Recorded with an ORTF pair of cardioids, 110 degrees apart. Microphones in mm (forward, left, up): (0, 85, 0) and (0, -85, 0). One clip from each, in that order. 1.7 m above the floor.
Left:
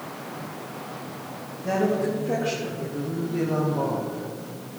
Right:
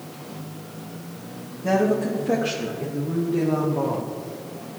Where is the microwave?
No microwave in this recording.